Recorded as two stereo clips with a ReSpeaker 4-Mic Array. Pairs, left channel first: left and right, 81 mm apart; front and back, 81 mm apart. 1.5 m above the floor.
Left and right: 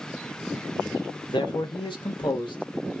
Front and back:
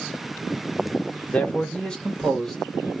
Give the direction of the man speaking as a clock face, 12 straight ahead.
10 o'clock.